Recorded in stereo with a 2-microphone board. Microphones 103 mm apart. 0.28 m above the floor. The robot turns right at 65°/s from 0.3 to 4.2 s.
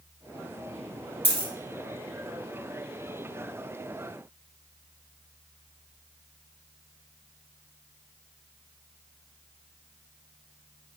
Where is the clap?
No clap in this recording.